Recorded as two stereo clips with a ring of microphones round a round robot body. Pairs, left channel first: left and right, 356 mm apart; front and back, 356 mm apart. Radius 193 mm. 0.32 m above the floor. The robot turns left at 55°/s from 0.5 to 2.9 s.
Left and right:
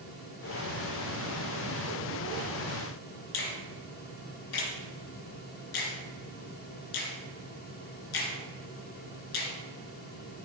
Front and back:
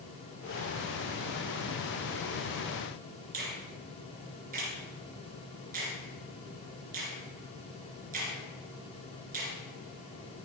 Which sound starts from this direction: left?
A finger snap, at 3.3 s.